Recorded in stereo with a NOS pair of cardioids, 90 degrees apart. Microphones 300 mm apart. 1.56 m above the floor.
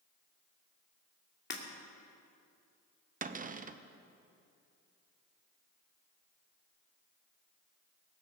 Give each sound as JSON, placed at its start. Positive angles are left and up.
{"t": 1.5, "sound": "breaking glass", "azimuth_deg": 35, "distance_m": 2.5}
{"t": 3.2, "sound": "a cupboard door", "azimuth_deg": -30, "distance_m": 0.8}